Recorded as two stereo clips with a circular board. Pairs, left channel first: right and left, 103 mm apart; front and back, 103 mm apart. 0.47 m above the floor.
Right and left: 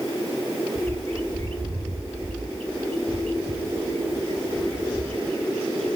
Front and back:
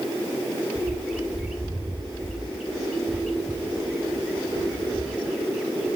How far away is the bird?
About 1.1 m.